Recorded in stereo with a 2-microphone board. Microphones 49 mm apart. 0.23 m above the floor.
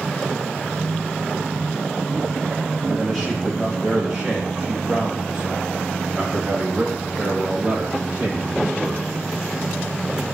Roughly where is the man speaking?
Centre.